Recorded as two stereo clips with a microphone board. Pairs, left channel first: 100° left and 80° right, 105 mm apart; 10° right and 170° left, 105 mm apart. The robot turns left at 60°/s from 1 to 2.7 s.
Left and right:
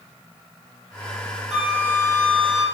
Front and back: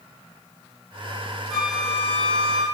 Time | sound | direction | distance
1.5 | a flute | 100° right | 5 m